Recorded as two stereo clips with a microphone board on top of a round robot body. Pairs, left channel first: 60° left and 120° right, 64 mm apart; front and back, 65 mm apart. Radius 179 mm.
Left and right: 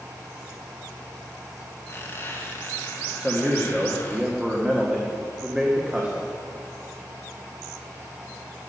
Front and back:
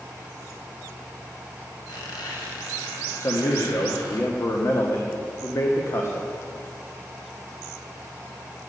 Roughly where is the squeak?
Ahead.